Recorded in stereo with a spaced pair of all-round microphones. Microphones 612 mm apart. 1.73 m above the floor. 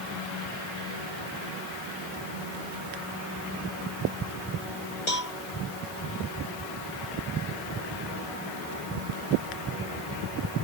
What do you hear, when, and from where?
5.1 s a cowbell: 80° left